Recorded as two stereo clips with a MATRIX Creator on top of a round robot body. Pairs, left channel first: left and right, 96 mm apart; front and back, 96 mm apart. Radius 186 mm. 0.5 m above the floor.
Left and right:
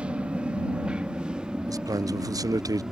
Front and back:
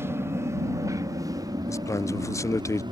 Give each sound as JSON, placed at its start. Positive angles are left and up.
{"t": 0.0, "sound": "an aircraft", "azimuth_deg": -155}
{"t": 1.7, "sound": "a man speaking", "azimuth_deg": -50}